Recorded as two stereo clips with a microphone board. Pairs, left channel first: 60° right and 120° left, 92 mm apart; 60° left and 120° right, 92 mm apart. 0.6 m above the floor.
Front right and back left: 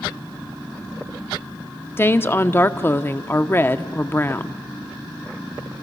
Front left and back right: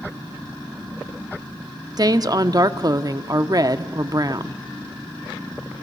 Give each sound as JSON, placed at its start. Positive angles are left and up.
{"t": 2.0, "sound": "a woman speaking", "azimuth_deg": -115, "distance_m": 0.7}